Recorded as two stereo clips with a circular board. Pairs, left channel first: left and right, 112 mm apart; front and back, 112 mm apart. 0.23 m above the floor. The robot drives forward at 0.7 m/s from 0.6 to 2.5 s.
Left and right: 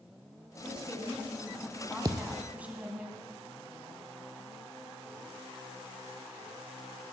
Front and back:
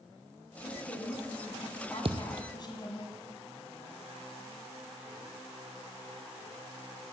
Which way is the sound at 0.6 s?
10° right.